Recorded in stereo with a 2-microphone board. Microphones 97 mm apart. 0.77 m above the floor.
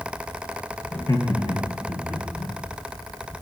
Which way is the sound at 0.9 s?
15° left (ahead or behind).